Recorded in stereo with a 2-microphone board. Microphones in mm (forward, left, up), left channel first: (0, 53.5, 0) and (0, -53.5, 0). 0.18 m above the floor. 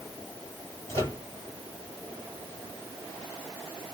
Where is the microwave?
25° left (ahead or behind), 2.5 m.